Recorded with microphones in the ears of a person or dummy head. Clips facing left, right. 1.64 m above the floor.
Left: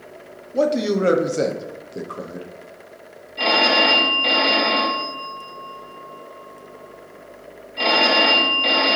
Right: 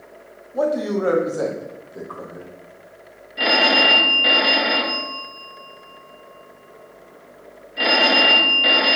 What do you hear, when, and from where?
0.5 s a man speaking: 40° left (ahead or behind), 0.8 m
3.4 s a phone ringing: 20° right (ahead or behind), 1.0 m